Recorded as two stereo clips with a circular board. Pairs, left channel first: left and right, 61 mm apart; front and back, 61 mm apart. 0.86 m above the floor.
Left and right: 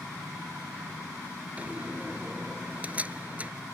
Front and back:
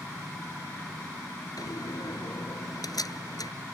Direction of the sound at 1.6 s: 20° right.